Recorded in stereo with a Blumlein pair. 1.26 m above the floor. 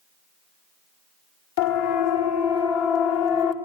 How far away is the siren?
About 4.5 m.